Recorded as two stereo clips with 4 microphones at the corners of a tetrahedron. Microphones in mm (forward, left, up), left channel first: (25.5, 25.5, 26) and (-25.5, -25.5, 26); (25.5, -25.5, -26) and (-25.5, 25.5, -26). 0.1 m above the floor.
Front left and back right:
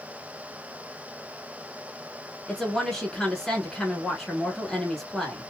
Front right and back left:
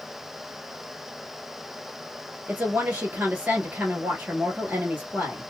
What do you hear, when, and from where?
2.5 s a woman speaking: 115° left, 1.2 m